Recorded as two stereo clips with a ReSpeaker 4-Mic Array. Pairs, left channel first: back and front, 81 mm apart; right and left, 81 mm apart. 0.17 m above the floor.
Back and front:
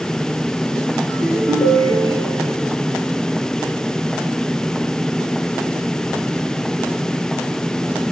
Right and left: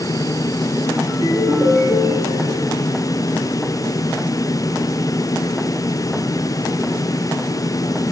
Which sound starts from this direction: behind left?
A ringtone, at 1.1 s.